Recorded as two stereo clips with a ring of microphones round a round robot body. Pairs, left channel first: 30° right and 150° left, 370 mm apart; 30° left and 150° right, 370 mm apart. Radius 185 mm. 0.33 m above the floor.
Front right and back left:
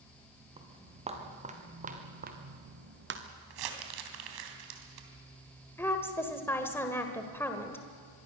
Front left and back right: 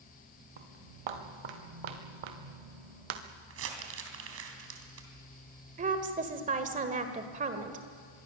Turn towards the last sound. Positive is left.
turn(degrees=-105)